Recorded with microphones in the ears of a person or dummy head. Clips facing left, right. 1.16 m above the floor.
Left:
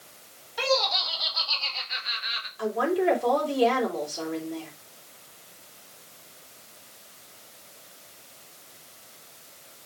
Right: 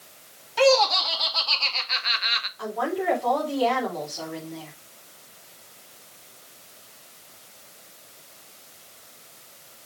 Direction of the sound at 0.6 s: 80° right.